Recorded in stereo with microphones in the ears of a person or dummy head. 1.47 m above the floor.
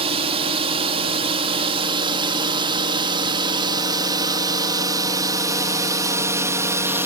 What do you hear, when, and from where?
0.0 s a drone: 30° right (ahead or behind); by 7.1 s 10° right (ahead or behind)